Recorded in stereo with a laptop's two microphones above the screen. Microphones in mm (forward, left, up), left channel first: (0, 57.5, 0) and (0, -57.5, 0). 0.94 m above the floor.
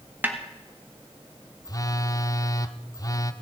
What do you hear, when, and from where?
0.2 s a snare drum: 15° right (ahead or behind), 1.5 m
1.6 s a phone buzzing: 35° left (ahead or behind), 0.6 m